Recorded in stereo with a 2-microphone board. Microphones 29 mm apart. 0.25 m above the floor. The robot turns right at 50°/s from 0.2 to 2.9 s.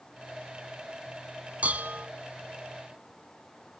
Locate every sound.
1.6 s dishes clattering: 55° right (ahead or behind), 1.3 m; by 2.1 s 60° right (ahead or behind), 1.3 m